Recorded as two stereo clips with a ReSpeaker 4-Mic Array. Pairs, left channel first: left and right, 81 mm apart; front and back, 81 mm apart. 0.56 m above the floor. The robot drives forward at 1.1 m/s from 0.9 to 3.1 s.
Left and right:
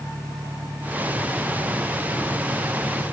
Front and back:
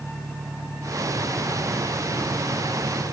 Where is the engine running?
140° right; by 3.1 s 145° right.